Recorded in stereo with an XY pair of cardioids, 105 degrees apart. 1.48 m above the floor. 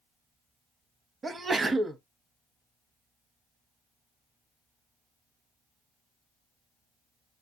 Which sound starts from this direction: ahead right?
A sneeze, at 1.2 s.